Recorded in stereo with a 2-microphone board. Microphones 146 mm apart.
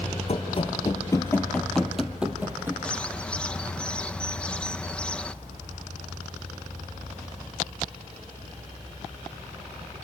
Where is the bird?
5° left (ahead or behind), 0.6 m.